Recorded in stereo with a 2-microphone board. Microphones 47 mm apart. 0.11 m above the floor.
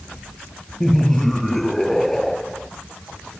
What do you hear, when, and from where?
0.8 s laughter: 5° left (ahead or behind)